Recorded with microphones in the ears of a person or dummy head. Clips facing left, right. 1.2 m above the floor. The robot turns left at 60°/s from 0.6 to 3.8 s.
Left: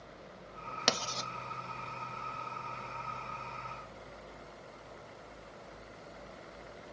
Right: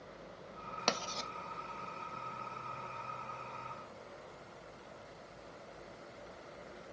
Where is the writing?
10° left (ahead or behind), 0.6 m; by 1.3 s 5° right (ahead or behind), 0.6 m.